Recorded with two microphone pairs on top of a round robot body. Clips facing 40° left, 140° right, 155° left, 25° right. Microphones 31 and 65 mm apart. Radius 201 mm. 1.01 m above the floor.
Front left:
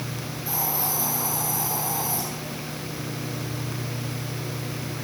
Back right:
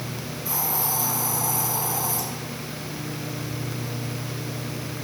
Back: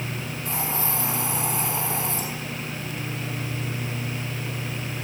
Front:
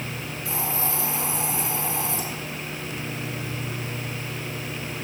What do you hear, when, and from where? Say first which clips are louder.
0.5 s a hiss: back right 1 dB, even; 160° right, 7.5 m